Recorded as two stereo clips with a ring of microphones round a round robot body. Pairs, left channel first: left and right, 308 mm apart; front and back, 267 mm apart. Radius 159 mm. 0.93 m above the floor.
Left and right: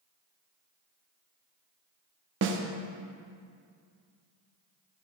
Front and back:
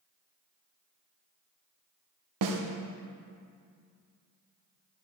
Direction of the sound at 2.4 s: 145° right.